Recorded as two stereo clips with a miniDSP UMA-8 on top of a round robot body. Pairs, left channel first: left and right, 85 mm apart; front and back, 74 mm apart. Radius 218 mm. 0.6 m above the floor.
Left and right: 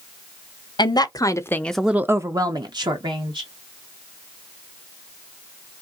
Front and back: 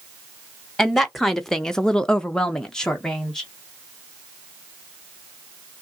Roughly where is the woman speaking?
Left.